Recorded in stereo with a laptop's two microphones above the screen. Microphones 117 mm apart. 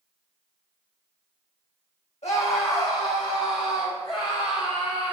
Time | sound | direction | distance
2.2 | a scream | 70° left (ahead or behind) | 1.6 m